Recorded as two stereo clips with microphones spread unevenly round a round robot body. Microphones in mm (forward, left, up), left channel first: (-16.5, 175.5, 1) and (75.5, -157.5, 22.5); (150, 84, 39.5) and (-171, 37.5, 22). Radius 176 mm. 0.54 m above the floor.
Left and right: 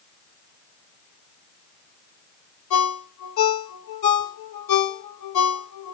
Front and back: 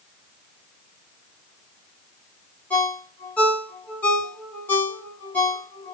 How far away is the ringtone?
About 1.5 m.